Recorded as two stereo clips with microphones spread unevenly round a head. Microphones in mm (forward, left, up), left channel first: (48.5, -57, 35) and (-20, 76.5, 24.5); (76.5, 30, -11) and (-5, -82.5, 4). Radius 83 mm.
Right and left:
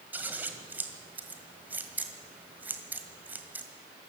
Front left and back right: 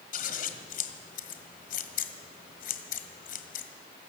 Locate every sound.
0.1 s scissors: 35° left, 1.7 m